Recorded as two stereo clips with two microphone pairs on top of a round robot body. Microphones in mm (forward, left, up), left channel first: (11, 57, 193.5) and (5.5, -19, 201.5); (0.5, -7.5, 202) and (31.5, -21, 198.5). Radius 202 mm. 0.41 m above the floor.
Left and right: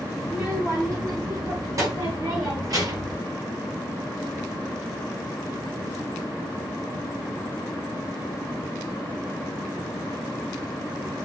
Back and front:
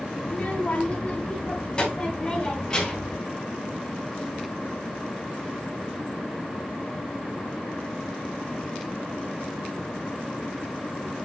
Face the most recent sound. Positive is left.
turn(degrees=-135)